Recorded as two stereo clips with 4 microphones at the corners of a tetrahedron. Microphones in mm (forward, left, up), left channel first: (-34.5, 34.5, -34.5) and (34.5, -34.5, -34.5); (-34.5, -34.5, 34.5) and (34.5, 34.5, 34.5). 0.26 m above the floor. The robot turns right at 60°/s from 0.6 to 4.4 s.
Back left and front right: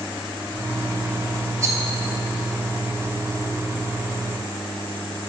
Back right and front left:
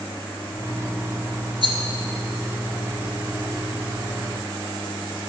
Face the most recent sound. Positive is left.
turn(degrees=180)